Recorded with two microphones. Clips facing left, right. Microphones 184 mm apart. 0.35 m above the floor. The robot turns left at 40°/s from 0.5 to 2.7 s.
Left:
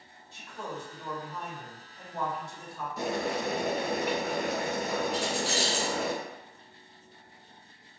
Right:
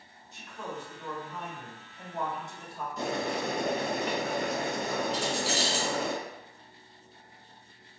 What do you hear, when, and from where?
0.3 s a man speaking: 45° left, 1.5 m; by 2.9 s 40° right, 1.5 m
3.0 s boiling: 5° left (ahead or behind), 1.1 m
5.1 s keys jangling: 20° right (ahead or behind), 1.6 m